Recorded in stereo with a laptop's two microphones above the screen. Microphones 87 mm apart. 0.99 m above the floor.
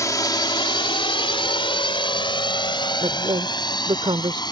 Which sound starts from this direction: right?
A woman speaking, at 3.0 s.